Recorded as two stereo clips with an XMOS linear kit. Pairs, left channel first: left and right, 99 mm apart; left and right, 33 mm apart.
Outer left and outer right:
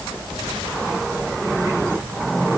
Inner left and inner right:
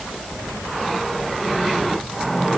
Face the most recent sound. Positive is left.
No sound to turn to.